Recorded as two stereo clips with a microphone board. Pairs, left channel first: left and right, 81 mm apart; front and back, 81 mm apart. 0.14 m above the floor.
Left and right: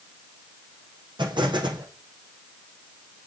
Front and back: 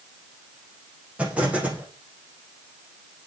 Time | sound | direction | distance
1.2 | an explosion | 105° right | 5.5 m